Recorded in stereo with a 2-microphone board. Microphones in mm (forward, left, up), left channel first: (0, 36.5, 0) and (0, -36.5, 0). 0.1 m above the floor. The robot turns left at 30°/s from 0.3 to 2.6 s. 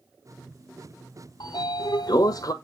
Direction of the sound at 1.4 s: 90° left.